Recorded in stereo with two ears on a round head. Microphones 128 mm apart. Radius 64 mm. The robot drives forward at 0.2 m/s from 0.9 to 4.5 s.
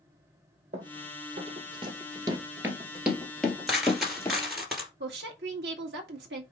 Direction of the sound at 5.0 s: 85° right.